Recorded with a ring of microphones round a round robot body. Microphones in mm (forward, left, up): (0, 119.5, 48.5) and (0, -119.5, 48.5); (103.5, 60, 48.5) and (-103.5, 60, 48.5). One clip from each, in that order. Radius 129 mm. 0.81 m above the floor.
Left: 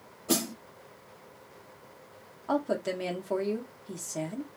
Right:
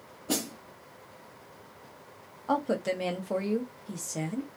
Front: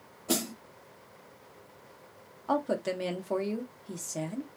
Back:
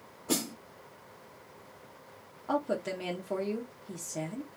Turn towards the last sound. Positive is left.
turn(degrees=-15)